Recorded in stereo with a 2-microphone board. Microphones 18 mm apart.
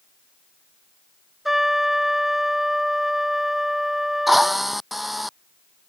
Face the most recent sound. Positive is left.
turn(degrees=0)  # may be behind; listen again after turning